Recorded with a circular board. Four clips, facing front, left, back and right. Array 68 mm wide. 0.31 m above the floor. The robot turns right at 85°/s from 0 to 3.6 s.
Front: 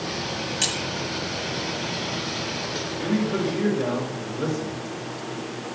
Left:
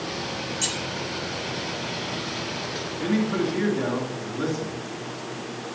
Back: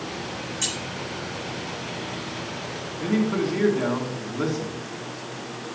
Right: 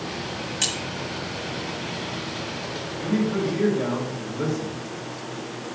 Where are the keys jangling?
50° right, 1.1 m; by 0.8 s 35° right, 1.1 m.